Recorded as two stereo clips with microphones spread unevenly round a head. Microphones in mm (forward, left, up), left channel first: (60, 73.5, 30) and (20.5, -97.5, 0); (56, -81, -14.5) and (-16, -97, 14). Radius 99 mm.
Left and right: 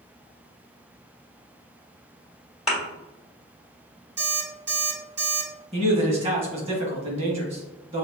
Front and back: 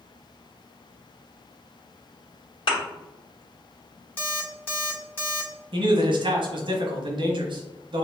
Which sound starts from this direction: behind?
A man speaking, at 5.7 s.